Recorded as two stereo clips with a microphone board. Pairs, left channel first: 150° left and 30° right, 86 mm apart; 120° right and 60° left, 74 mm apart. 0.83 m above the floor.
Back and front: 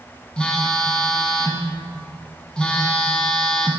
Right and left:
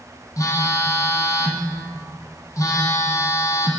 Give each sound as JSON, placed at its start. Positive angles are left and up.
{"t": 0.4, "sound": "a phone buzzing", "azimuth_deg": -135, "distance_m": 1.1}